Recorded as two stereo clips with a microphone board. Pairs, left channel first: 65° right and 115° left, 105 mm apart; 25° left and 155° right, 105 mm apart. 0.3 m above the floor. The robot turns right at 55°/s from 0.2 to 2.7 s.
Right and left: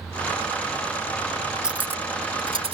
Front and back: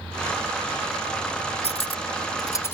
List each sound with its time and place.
1.6 s cutlery clinking: 30° left; by 2.7 s 90° left